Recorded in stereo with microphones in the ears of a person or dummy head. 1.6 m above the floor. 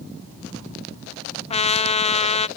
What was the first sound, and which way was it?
A trumpet, 30° left (ahead or behind).